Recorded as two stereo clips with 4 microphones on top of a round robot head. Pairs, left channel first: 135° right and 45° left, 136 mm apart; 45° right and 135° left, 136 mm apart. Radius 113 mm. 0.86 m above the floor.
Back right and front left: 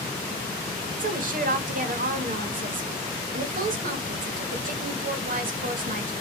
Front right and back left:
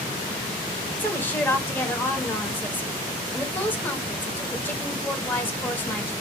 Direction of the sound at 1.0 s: 30° left.